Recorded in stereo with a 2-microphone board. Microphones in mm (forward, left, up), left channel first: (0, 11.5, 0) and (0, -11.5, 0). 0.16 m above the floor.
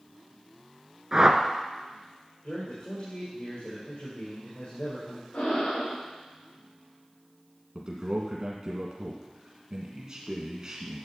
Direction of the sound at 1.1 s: 20° right (ahead or behind).